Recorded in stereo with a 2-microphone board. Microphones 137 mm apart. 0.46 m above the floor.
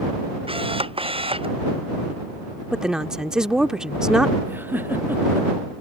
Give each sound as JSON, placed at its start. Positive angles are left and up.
{"t": 0.5, "sound": "a camera shutter", "side_deg": -40}
{"t": 2.7, "sound": "a woman speaking", "side_deg": -5}
{"t": 4.5, "sound": "a giggle", "side_deg": -15}